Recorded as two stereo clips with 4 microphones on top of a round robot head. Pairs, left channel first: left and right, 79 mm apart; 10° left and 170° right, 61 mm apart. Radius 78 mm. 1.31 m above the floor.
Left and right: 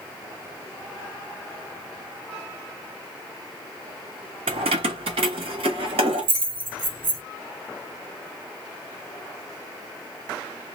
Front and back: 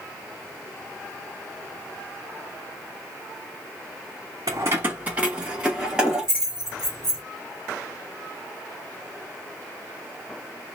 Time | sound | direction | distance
4.5 | keys jangling | 115° right | 0.5 m